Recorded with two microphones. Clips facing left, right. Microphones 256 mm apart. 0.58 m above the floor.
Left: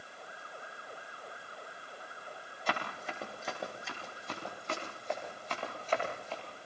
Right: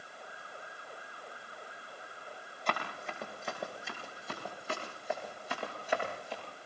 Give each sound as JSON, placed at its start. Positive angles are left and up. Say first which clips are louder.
{"t": 2.7, "sound": "running footsteps", "louder": "even", "side_deg": 5, "distance_m": 8.5}